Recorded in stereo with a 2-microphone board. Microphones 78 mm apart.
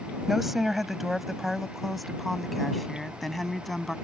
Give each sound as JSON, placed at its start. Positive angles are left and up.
{"t": 0.3, "sound": "a woman speaking", "side_deg": -5}